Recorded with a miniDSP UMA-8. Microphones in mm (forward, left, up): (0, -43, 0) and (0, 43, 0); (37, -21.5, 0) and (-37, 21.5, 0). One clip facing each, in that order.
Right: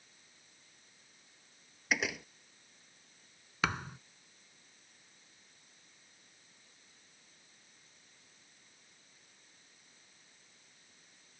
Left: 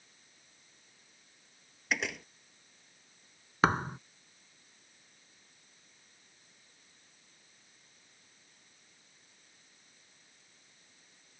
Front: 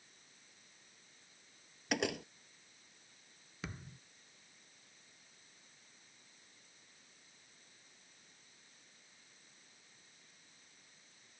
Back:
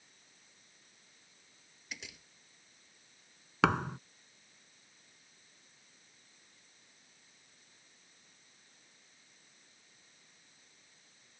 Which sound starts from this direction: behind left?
A thud, at 3.6 s.